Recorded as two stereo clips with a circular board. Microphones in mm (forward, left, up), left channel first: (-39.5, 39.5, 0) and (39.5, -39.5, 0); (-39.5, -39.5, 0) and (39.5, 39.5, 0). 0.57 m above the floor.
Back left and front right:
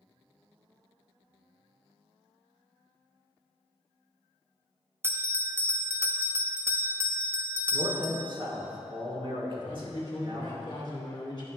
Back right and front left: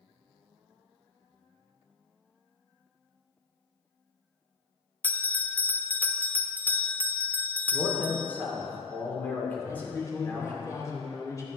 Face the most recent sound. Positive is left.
turn(degrees=175)